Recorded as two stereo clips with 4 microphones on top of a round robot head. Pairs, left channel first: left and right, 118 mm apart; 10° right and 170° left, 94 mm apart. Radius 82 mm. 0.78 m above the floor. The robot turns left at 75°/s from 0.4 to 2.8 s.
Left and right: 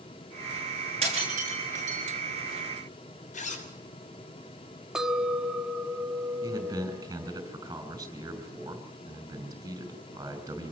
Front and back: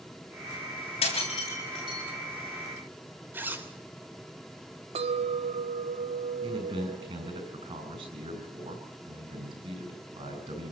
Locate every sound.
1.0 s breaking glass: 45° right, 7.5 m; by 2.0 s 115° right, 7.5 m
3.3 s a zipper: 100° left, 3.5 m
5.0 s a clink: 175° right, 1.6 m
6.4 s a man speaking: 155° right, 5.5 m